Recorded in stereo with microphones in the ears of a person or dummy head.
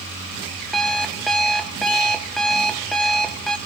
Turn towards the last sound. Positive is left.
turn(degrees=5)  # may be behind; listen again after turning